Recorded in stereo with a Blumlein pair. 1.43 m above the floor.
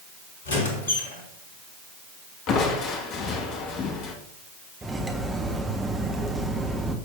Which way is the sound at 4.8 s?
10° right.